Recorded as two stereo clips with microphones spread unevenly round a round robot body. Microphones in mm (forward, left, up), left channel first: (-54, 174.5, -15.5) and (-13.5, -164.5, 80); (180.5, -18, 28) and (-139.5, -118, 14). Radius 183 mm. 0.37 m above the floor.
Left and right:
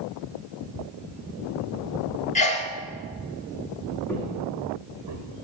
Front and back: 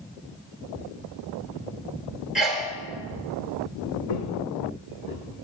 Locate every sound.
2.4 s a sneeze: 110° left, 1.3 m
4.1 s footsteps: 10° left, 1.6 m; by 5.2 s 40° right, 2 m